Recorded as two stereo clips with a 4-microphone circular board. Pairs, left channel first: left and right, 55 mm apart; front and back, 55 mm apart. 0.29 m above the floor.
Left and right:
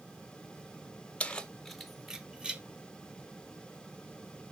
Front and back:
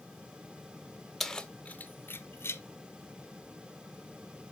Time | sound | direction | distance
1.2 | keys jangling | 75° left | 0.6 m